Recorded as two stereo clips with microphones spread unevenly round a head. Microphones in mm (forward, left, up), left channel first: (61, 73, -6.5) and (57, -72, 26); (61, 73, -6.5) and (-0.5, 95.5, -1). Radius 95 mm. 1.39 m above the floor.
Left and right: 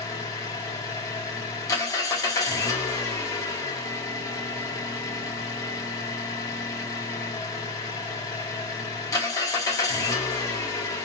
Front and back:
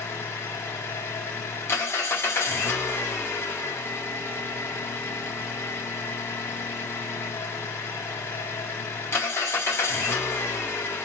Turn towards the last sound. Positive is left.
turn(degrees=15)